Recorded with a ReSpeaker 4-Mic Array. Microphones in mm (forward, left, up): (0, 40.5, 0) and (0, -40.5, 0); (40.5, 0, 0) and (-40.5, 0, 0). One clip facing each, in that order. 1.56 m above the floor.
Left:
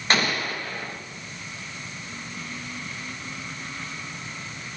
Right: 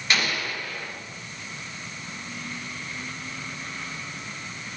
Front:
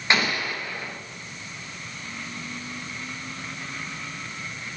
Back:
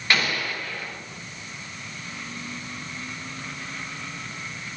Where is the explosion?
60° left, 1.0 m.